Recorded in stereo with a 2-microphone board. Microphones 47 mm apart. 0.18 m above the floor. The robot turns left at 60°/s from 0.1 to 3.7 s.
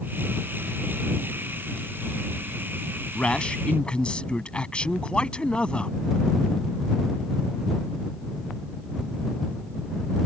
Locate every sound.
3.1 s a man speaking: 20° left (ahead or behind); by 6.0 s 25° left (ahead or behind)